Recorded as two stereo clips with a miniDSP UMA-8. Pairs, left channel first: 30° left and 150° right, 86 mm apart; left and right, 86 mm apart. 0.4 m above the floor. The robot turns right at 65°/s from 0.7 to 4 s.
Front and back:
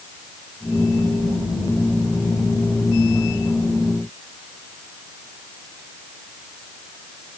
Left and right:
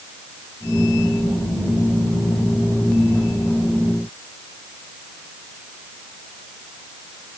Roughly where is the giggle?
No giggle in this recording.